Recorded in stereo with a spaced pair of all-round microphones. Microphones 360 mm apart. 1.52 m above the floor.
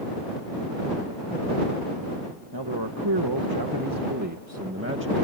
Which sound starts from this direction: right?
A man speaking, at 2.5 s.